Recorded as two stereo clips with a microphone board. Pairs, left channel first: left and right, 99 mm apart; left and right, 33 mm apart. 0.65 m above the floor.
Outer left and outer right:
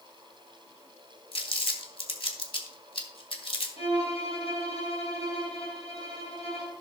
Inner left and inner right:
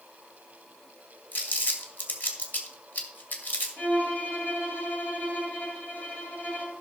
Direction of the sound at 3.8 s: 85° left.